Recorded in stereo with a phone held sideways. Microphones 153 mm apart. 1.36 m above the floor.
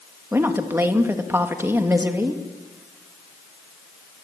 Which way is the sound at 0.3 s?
15° right (ahead or behind).